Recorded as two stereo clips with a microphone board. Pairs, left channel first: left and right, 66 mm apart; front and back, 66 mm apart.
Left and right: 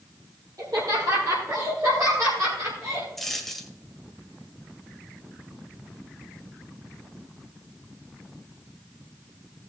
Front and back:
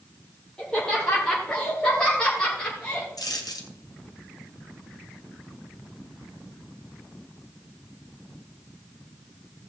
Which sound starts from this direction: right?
Laughter, at 0.6 s.